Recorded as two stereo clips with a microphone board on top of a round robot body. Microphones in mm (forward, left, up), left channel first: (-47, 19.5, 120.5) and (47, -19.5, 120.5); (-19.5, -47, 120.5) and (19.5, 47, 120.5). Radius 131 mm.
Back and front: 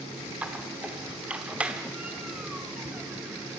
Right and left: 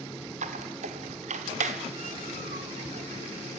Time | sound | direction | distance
0.4 | a squeak | 55° left | 1.0 m